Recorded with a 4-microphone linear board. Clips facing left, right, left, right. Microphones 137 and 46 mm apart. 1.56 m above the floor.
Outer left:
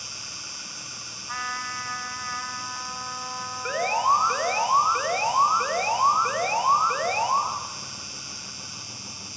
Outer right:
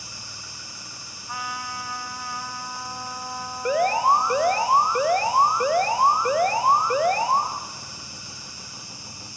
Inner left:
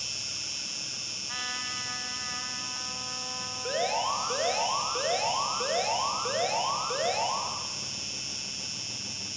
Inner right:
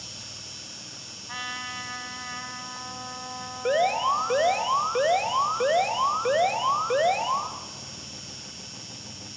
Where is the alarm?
25° right (ahead or behind), 2.5 m.